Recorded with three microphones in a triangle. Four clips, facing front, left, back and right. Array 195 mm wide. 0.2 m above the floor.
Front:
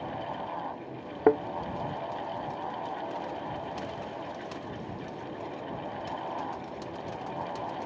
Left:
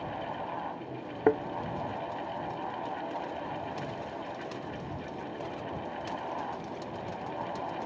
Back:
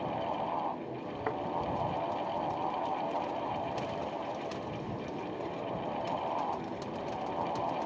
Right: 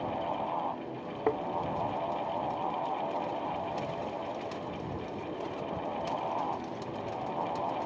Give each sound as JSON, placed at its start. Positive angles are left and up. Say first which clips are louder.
{"t": 1.3, "sound": "a thud", "louder": "left 5 dB, front 13 dB", "azimuth_deg": 20}